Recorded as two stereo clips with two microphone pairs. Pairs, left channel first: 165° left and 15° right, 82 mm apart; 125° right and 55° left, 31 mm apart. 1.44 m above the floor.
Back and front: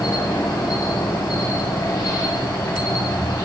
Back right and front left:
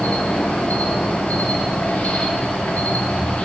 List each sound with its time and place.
0.0 s an insect: 150° right, 1.6 m